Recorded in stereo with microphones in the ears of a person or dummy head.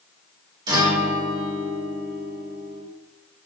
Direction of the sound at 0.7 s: 25° right (ahead or behind).